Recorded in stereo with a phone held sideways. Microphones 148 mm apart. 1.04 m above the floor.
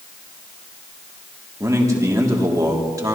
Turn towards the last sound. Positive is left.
turn(degrees=-20)  # may be behind; listen again after turning